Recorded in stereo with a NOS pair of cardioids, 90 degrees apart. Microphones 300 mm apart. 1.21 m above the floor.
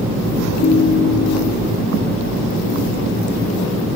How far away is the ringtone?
About 1.7 m.